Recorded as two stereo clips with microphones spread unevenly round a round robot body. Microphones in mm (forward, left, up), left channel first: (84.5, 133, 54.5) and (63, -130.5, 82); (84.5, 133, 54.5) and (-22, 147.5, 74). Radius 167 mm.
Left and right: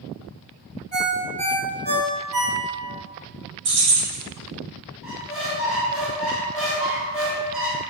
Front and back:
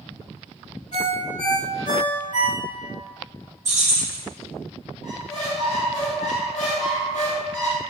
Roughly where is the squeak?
Ahead.